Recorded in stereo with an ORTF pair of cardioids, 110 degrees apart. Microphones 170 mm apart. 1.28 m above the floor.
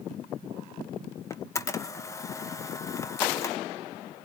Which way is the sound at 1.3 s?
15° left.